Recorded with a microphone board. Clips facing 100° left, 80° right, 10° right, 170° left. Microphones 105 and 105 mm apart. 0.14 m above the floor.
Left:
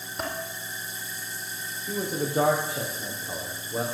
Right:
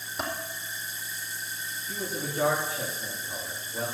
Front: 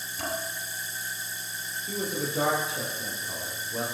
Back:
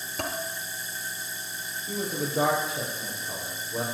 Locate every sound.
0.2 s dishes clattering: 170° right, 2.5 m
1.9 s a man speaking: 80° left, 5 m